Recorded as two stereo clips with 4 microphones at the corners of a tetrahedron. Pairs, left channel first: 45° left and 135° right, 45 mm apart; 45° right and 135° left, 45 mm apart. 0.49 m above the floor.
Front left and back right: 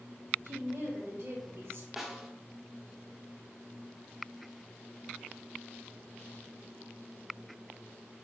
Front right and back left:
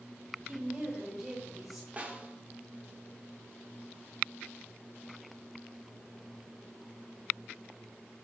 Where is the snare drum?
150° left, 1.3 m.